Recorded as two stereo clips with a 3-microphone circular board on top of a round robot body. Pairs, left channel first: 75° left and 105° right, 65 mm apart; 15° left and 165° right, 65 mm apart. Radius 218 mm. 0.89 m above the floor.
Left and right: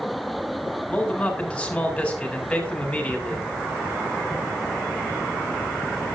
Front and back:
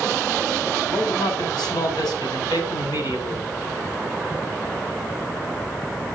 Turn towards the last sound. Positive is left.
turn(degrees=0)